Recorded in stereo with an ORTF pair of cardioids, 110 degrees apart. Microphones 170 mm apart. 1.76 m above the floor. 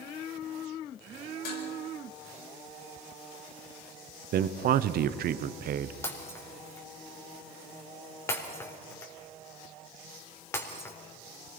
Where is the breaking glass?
15° left, 4 m.